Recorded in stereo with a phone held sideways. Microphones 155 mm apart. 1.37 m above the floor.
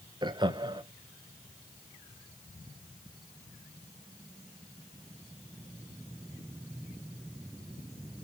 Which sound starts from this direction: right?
Laughter, at 0.2 s.